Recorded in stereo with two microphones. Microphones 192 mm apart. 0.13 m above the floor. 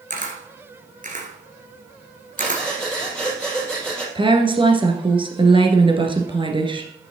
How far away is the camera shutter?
About 1.9 m.